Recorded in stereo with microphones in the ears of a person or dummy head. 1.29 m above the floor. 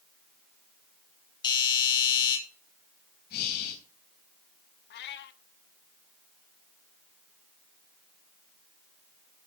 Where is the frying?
I don't hear frying.